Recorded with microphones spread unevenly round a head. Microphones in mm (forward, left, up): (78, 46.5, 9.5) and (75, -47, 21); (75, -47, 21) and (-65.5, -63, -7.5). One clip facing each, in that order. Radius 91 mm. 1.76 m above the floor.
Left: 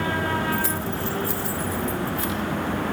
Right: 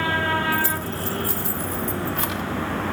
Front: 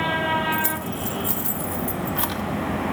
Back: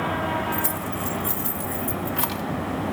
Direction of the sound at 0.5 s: 45° right.